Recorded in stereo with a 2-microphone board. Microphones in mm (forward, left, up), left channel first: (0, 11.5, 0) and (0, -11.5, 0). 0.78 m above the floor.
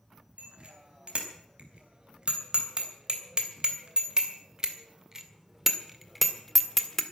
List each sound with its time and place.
0.4 s a bicycle bell: 60° right (ahead or behind), 4 m; by 7.0 s 10° left (ahead or behind), 1.5 m